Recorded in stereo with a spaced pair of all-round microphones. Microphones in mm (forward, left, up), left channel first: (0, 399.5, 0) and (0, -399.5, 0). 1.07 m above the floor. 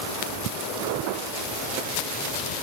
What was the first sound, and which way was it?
Only background noise.